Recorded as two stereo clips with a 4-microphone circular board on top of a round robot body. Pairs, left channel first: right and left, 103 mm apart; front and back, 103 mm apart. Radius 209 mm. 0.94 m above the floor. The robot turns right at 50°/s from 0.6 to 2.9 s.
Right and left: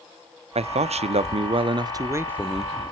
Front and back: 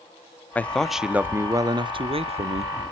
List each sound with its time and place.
0.6 s a man speaking: 75° left, 0.8 m; by 2.7 s 175° right, 0.8 m